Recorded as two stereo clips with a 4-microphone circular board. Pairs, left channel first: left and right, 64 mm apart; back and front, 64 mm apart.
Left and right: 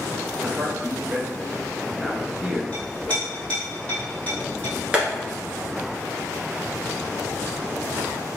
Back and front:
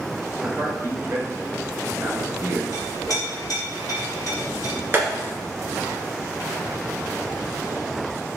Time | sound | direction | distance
0.4 | a man speaking | 25° right | 1.6 m
2.7 | a clink | 155° left | 2.5 m
4.9 | tapping | 25° right | 1.9 m